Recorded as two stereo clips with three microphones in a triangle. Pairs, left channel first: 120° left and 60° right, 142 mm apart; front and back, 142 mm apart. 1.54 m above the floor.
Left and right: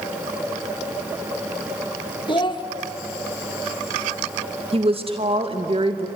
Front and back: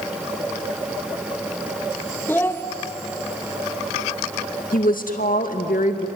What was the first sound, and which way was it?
A child speaking, 70° left.